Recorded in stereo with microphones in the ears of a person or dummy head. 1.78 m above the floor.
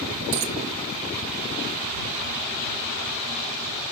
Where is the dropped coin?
45° right (ahead or behind).